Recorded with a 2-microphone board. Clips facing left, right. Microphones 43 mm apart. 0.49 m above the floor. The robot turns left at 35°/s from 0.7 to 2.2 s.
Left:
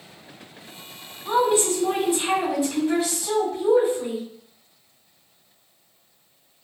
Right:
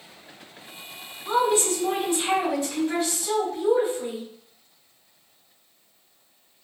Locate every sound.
1.2 s a woman speaking: 45° left, 1.7 m; by 4.2 s 15° left, 1.7 m